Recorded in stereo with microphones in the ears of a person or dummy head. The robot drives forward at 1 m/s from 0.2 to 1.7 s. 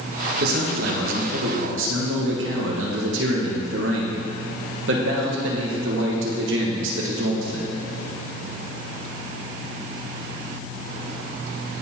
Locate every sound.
0.4 s a man speaking: 55° right (ahead or behind), 1.6 m; by 7.8 s 60° right (ahead or behind), 1.5 m